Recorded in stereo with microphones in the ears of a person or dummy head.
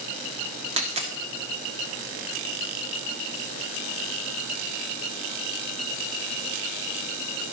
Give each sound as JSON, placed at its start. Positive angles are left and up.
{"t": 0.8, "sound": "a dropped coin", "side_deg": -30, "distance_m": 1.5}